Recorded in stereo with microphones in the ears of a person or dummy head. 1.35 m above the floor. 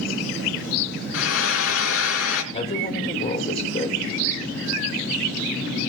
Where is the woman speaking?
25° left (ahead or behind), 5.5 m.